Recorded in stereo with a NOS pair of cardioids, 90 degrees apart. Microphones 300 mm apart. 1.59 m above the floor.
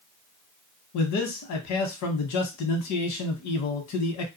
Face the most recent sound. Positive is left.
turn(degrees=70)